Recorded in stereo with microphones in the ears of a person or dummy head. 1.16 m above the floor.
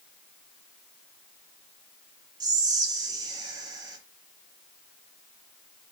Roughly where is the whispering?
Right.